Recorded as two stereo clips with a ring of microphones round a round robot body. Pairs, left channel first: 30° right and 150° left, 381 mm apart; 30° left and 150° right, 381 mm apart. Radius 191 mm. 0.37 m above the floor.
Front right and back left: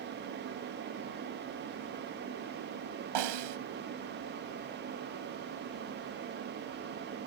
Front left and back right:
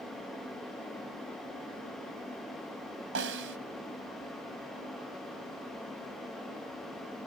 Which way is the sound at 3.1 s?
155° left.